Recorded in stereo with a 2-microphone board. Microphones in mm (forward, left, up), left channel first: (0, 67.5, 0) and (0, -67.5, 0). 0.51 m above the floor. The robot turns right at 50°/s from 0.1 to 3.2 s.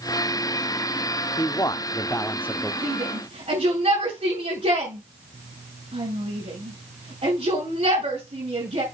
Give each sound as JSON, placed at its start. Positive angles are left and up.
{"t": 1.4, "sound": "a man speaking", "side_deg": 30, "distance_m": 0.7}
{"t": 2.8, "sound": "a shout", "side_deg": -70, "distance_m": 5.5}